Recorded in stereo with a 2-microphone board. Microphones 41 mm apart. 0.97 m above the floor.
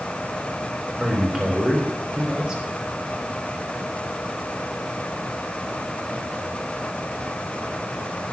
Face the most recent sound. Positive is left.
turn(degrees=-15)  # may be behind; listen again after turning